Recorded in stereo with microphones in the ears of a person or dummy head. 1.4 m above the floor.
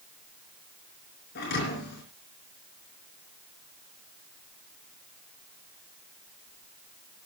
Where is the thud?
60° left (ahead or behind), 4.5 m.